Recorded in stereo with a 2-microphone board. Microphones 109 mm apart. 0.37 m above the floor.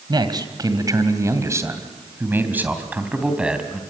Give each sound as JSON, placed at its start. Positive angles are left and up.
{"t": 0.1, "sound": "a man speaking", "side_deg": -40, "distance_m": 2.5}